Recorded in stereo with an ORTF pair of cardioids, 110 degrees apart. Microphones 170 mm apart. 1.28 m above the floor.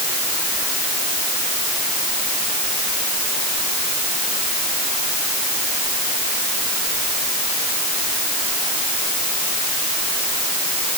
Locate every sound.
Only background noise.